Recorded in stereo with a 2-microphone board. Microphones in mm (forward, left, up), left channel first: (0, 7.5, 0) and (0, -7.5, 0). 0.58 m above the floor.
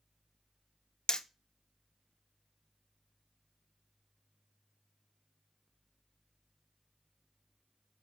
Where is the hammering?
55° left (ahead or behind), 0.8 m.